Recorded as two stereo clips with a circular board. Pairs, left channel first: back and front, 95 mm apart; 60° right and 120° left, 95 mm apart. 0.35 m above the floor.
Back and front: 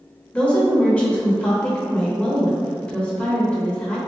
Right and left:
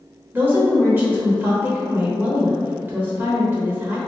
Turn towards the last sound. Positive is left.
turn(degrees=130)